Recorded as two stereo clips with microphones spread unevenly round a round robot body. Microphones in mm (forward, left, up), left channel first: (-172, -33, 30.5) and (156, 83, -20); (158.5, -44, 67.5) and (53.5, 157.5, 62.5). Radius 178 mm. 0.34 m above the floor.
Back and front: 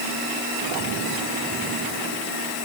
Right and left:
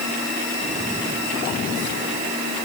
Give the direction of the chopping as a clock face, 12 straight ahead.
No chopping in this recording.